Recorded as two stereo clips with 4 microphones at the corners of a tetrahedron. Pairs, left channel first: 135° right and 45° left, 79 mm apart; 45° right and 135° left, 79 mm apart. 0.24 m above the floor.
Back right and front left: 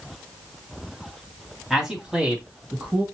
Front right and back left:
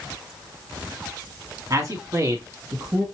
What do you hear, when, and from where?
1.7 s a man speaking: 125° left, 1.8 m; by 3.0 s 110° left, 2.5 m